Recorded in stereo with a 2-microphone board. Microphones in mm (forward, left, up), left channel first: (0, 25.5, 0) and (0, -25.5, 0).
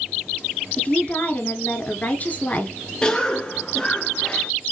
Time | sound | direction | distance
0.8 | a woman speaking | 35° left (ahead or behind) | 1.4 m
3.0 | a cough | 15° left (ahead or behind) | 1.2 m